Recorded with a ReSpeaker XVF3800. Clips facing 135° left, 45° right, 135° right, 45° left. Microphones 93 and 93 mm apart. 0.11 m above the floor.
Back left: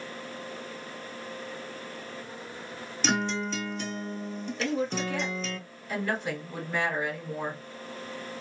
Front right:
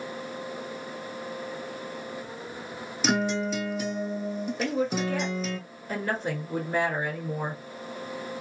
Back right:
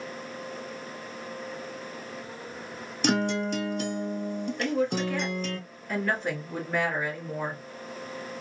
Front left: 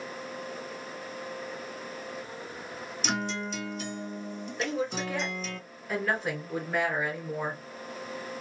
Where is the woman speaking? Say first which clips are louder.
Front right 1 dB, back right 4 dB; 40° right, 1.7 m.